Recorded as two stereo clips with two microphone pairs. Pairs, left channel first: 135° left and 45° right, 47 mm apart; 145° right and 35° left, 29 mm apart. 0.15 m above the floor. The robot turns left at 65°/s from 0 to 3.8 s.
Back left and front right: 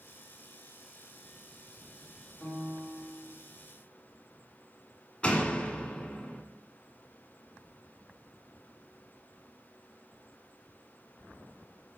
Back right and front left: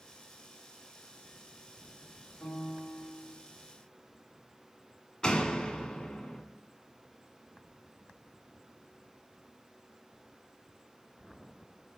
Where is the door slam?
175° left, 0.8 m.